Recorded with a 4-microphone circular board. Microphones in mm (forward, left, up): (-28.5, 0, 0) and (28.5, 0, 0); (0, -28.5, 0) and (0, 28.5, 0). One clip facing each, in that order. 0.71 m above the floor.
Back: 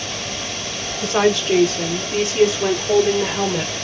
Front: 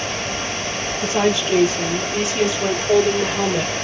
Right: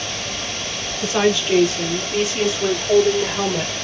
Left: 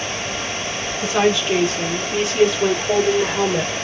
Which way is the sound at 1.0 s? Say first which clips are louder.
Back 2 dB, even; 175° left.